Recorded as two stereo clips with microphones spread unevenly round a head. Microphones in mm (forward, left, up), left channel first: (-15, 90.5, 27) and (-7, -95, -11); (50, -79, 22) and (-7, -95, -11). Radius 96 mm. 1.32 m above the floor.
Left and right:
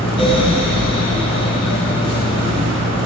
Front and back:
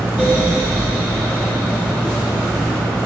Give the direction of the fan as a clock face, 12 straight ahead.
9 o'clock.